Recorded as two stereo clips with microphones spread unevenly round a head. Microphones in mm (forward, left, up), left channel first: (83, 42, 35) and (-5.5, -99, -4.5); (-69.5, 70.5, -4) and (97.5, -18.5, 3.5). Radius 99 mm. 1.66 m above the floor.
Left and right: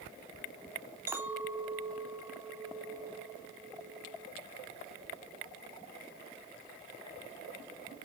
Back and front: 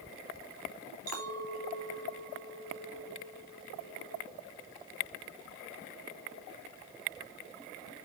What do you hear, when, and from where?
1.1 s a clink: 40° right, 3.5 m